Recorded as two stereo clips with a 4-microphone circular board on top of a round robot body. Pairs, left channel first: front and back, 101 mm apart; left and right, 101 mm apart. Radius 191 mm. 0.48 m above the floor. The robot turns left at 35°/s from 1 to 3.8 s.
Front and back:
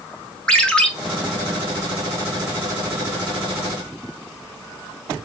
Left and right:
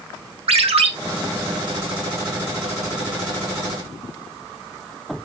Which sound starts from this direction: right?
A ringtone, at 0.5 s.